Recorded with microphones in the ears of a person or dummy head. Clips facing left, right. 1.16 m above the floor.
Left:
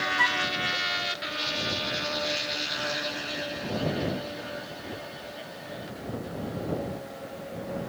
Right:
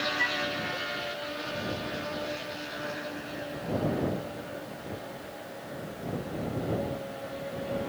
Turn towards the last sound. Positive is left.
turn(degrees=80)